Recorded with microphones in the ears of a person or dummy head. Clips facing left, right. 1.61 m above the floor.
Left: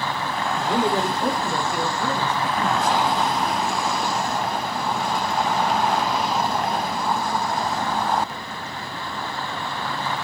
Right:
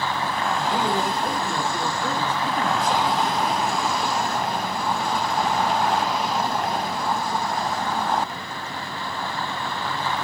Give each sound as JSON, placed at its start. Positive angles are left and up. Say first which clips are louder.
{"t": 0.6, "sound": "a man speaking", "louder": "left 4 dB", "side_deg": 60, "distance_m": 1.3}